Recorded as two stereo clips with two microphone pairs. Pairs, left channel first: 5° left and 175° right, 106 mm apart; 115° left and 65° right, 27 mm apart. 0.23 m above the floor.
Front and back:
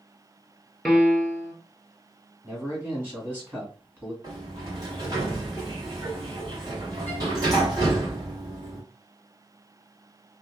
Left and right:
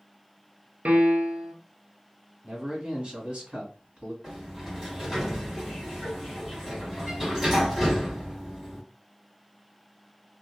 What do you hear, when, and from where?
0.8 s a piano: 85° right, 0.7 m
2.4 s a man speaking: 110° right, 1.7 m
4.2 s a sliding door: 145° right, 2 m